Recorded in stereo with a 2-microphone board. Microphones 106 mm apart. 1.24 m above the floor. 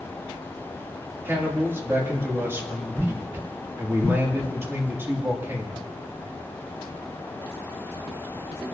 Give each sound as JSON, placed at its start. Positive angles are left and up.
{"t": 1.2, "sound": "a man speaking", "side_deg": -25, "distance_m": 3.0}